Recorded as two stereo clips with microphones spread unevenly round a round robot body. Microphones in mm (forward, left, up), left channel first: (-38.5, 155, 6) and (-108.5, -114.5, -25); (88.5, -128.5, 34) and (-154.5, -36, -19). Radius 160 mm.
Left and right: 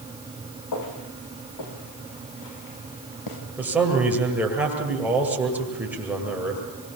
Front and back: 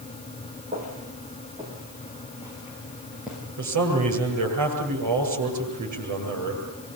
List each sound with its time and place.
0.7 s footsteps: 90° left, 7.5 m; by 3.4 s 70° left, 8 m
3.6 s a man speaking: 170° left, 9.5 m